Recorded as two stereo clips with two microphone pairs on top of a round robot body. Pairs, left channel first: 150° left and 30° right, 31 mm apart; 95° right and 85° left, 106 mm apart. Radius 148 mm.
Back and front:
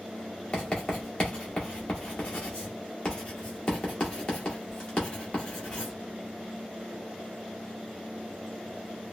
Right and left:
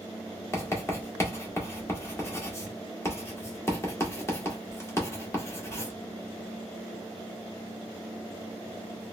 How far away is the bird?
No bird in this recording.